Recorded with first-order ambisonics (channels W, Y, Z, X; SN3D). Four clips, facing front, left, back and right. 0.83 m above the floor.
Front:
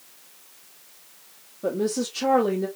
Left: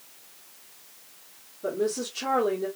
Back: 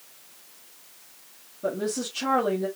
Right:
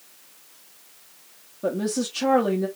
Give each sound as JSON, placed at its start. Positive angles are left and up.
{"t": 1.6, "sound": "a woman speaking", "azimuth_deg": -85, "distance_m": 1.4}